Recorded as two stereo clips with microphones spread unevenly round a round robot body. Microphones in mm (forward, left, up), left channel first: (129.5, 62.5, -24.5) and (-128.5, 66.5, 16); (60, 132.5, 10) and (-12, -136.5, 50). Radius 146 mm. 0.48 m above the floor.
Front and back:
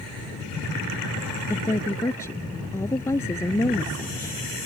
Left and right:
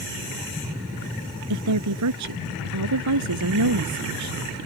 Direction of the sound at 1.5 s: 85° right.